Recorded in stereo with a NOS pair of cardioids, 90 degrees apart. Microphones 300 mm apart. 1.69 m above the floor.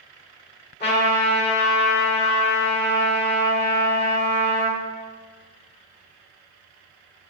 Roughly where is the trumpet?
Ahead left.